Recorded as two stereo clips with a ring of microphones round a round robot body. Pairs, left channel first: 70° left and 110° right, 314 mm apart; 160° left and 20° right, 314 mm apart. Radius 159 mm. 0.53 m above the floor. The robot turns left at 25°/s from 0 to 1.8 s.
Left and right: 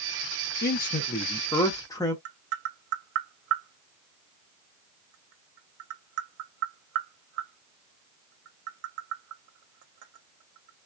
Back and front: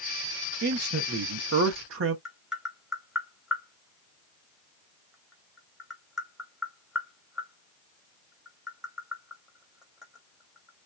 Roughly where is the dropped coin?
I don't hear a dropped coin.